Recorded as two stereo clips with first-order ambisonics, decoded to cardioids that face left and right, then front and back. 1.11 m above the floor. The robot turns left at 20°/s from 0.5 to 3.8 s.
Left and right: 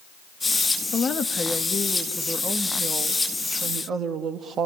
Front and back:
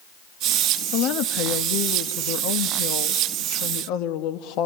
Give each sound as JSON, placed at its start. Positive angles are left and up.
{"t": 0.9, "sound": "a woman speaking", "azimuth_deg": 30, "distance_m": 1.3}